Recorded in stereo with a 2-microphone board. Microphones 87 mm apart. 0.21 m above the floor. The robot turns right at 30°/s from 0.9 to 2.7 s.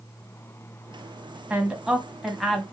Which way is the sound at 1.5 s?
15° right (ahead or behind).